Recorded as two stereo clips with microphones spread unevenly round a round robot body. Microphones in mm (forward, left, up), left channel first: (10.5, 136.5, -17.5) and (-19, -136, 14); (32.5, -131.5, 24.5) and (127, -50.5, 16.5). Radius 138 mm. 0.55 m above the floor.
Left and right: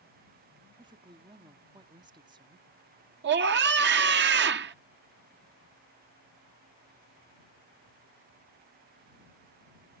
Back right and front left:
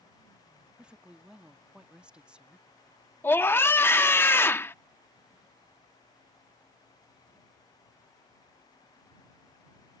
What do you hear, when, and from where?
0.8 s a woman speaking: 25° right
3.2 s a scream: 75° right